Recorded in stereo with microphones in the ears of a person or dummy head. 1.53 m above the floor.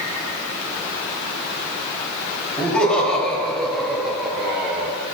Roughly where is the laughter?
Centre.